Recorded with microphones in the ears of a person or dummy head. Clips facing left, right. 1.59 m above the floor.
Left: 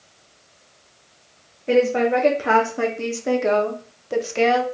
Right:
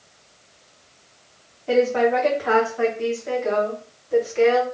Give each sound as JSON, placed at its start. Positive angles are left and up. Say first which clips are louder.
{"t": 1.7, "sound": "a woman speaking", "louder": "left 1 dB", "side_deg": 30, "distance_m": 1.2}